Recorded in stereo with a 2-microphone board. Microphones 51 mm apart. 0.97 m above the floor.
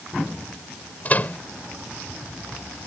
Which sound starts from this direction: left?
A microwave, at 1.1 s.